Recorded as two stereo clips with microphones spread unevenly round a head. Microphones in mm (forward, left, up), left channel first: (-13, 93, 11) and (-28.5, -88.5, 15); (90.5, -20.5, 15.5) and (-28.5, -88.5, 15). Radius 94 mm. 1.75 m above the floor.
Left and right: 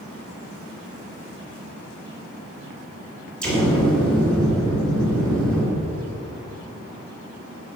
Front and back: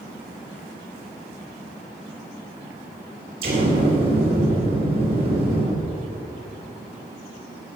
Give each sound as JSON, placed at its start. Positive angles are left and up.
{"t": 3.4, "sound": "an explosion", "azimuth_deg": 170, "distance_m": 3.5}